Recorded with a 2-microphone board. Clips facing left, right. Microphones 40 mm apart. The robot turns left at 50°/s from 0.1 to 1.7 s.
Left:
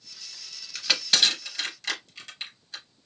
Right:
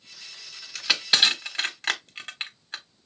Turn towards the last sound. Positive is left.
turn(degrees=-40)  # may be behind; listen again after turning